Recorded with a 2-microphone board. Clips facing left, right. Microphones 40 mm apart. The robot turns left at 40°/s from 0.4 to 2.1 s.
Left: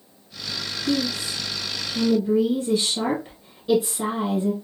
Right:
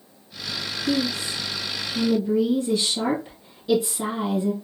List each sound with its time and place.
0.9 s a woman speaking: 25° left (ahead or behind), 1.5 m; by 4.5 s 20° left (ahead or behind), 1.5 m